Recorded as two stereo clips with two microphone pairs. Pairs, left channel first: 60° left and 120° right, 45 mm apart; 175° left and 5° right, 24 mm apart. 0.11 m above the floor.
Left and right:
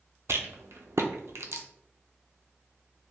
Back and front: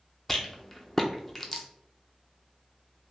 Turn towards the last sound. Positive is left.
turn(degrees=-105)